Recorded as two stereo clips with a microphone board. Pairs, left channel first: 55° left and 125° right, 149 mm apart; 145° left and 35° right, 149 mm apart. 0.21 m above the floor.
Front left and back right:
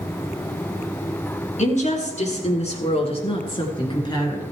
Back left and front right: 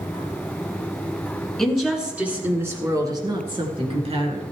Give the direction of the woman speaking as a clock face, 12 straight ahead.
10 o'clock.